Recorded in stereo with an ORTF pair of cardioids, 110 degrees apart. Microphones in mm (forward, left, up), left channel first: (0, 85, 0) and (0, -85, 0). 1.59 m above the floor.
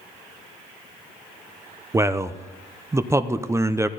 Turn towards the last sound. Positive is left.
turn(degrees=-15)